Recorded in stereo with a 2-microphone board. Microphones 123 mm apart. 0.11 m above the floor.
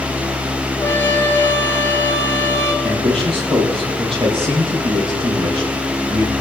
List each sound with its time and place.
0.8 s a trumpet: 20° left (ahead or behind), 2 m
2.8 s a man speaking: 50° right (ahead or behind), 4.5 m